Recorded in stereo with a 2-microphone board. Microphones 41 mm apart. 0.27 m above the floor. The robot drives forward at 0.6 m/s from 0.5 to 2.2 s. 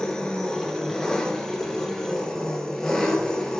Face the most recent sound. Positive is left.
turn(degrees=15)  # may be behind; listen again after turning